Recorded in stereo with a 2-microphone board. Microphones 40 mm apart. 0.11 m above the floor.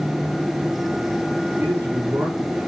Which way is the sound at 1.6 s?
75° right (ahead or behind).